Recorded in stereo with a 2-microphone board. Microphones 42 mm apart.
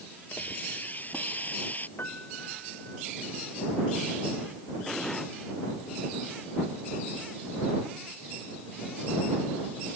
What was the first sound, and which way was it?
A hiss, 40° left (ahead or behind).